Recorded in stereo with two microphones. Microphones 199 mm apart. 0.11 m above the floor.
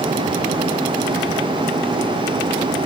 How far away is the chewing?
No chewing in this recording.